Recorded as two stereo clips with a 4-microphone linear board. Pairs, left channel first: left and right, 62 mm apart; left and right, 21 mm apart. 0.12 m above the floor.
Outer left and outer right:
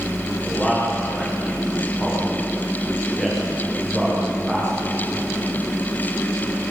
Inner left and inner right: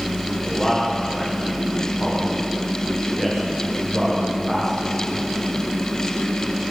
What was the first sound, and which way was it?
A man speaking, 15° left (ahead or behind).